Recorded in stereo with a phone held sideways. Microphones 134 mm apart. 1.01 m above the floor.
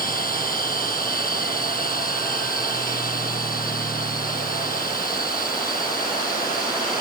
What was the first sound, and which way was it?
A machine running, 90° left.